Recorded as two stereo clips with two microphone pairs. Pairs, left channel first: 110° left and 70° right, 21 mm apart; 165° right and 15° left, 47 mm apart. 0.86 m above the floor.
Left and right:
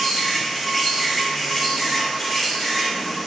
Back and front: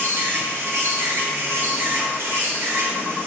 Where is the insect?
25° left, 3 m.